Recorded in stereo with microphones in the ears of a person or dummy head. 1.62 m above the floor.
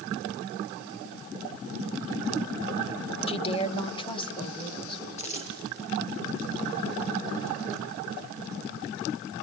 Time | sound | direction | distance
3.3 | a woman speaking | 30° left (ahead or behind) | 1.0 m
5.2 | a dropped coin | 35° left (ahead or behind) | 6 m